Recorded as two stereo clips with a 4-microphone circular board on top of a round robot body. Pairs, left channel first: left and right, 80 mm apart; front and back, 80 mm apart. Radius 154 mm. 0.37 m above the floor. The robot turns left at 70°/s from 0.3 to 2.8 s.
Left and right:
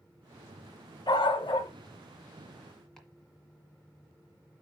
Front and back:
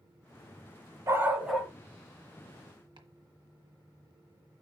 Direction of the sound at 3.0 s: 175° left.